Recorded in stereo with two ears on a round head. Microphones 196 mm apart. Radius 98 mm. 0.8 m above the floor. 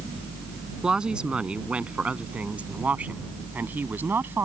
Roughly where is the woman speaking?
Centre.